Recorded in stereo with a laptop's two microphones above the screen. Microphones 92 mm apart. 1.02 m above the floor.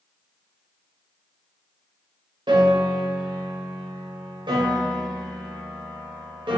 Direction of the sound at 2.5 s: 60° right (ahead or behind).